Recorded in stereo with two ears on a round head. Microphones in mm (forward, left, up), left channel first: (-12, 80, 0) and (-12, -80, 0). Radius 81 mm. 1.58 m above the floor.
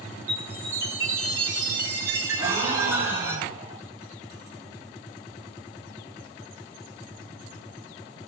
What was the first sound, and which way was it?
A chime, 15° right (ahead or behind).